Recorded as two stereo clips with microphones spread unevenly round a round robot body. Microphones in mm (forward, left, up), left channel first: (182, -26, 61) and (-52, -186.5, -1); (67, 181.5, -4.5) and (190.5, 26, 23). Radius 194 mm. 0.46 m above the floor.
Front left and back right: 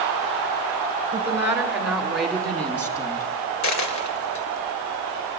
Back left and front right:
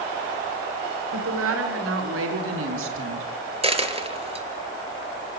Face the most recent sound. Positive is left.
turn(degrees=10)